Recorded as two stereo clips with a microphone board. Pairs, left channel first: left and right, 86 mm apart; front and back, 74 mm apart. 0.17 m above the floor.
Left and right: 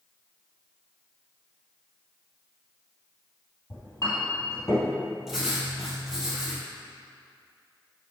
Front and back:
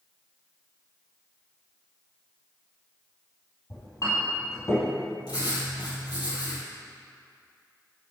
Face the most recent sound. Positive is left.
turn(degrees=-5)